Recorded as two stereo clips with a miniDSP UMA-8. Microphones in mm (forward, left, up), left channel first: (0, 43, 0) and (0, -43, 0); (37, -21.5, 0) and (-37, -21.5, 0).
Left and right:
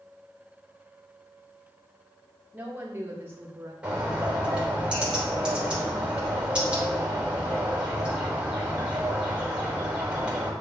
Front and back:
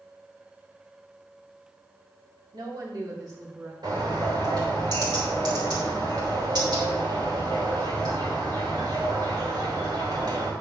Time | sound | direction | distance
2.5 | a woman speaking | 160° right | 2 m
3.8 | a bird | 165° right | 3 m